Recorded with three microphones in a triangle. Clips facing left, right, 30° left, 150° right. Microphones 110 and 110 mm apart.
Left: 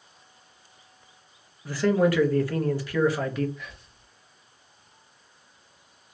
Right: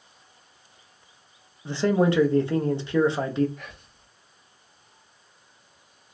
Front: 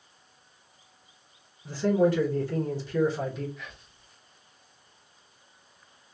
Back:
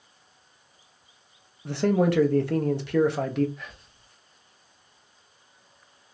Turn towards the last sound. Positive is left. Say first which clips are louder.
# even, back 1 dB
turn(degrees=-110)